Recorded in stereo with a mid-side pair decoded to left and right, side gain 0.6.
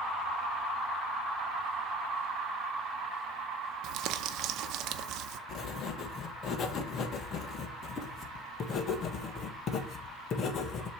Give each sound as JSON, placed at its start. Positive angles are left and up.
{"t": 3.8, "sound": "crumpling", "azimuth_deg": -65, "distance_m": 0.8}
{"t": 5.5, "sound": "writing", "azimuth_deg": 45, "distance_m": 1.3}